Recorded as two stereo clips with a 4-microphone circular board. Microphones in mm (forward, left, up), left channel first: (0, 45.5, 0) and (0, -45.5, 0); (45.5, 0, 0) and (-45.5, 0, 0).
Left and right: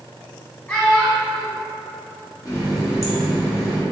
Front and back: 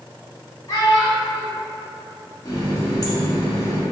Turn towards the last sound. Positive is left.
turn(degrees=40)